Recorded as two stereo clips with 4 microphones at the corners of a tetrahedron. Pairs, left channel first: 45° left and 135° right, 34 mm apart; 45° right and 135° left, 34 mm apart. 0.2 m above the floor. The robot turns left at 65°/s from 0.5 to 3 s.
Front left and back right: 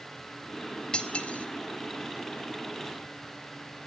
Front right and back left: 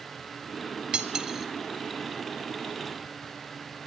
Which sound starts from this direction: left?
Cutlery clinking, at 0.9 s.